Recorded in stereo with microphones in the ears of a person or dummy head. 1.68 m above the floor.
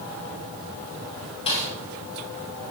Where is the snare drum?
30° left (ahead or behind), 5.5 m.